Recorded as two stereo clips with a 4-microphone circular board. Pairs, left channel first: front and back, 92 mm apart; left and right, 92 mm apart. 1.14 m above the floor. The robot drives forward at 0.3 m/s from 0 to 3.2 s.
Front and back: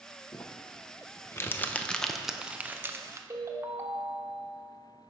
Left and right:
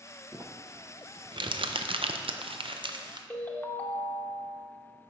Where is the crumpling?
40° right, 0.7 m; by 3.2 s 125° right, 0.6 m.